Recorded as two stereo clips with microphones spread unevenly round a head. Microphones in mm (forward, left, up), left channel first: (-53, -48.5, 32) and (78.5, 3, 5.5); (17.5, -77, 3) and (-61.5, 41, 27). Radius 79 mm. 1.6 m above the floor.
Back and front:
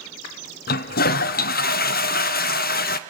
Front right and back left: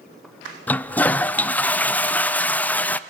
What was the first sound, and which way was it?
A toilet flushing, 135° right.